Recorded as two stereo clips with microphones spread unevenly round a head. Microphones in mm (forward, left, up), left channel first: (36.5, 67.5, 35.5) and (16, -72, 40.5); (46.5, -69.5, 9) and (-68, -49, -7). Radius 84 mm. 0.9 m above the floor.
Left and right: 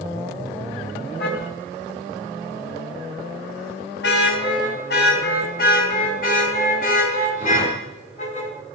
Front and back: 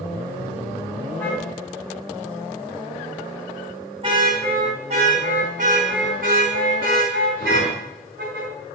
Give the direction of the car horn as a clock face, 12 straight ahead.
10 o'clock.